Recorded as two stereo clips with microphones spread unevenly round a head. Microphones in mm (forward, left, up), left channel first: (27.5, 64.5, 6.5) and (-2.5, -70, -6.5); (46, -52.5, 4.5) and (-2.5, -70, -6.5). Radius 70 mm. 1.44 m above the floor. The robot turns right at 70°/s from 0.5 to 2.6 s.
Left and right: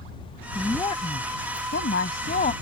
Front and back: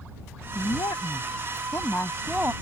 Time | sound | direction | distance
0.6 | a woman speaking | 10° right | ?